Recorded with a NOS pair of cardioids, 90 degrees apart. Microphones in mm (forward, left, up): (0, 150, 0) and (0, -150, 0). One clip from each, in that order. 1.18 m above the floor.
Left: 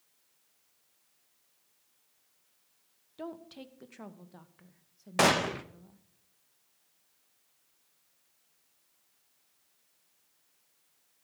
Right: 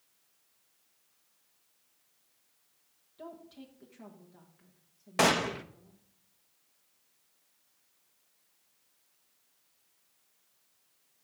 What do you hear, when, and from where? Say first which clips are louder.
3.2 s a woman speaking: left 4 dB; 55° left, 1.2 m
5.2 s a gunshot: left 1 dB; 5° left, 0.6 m